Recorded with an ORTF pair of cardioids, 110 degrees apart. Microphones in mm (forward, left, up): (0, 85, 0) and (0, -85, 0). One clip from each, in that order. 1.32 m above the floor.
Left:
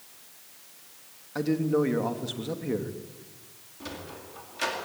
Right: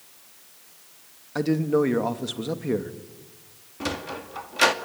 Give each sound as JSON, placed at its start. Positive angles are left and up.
{"t": 1.4, "sound": "a man speaking", "azimuth_deg": -25, "distance_m": 2.5}
{"t": 3.8, "sound": "a sliding door", "azimuth_deg": -60, "distance_m": 2.0}